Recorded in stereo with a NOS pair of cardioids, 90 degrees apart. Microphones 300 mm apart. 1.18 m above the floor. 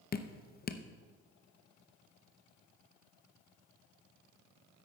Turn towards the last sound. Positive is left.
turn(degrees=30)